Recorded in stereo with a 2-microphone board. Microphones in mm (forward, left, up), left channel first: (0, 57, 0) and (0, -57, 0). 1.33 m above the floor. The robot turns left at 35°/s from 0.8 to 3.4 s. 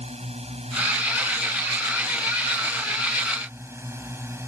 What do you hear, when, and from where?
0.0 s a drone: 65° right; by 4.5 s 160° right